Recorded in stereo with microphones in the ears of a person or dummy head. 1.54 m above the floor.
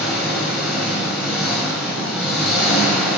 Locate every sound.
0.0 s an engine running: 5° left (ahead or behind), 3 m